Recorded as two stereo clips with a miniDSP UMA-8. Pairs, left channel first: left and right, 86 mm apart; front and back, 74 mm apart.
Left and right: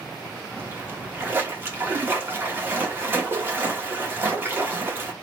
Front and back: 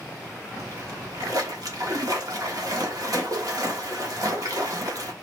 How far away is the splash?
About 1.2 m.